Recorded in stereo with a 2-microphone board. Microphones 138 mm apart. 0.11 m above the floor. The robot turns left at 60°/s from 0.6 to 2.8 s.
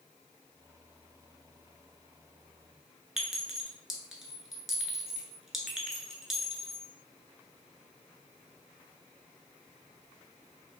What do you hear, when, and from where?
3.2 s a clink: centre (ahead or behind), 0.8 m